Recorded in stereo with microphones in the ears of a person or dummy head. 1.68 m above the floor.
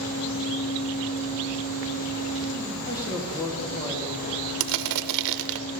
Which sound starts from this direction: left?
A fan, at 0.0 s.